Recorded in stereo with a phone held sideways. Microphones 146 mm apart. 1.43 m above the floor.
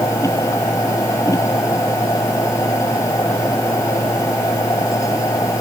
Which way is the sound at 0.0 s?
20° left (ahead or behind).